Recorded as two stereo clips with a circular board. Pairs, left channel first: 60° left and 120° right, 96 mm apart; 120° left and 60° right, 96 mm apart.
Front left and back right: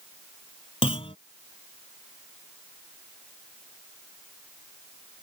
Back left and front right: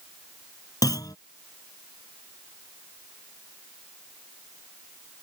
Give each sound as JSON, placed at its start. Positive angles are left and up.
{"t": 0.8, "sound": "a clunk", "azimuth_deg": 70}